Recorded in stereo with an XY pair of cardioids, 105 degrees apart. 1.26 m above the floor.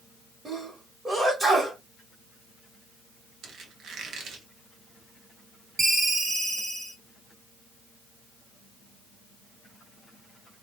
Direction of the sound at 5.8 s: 30° right.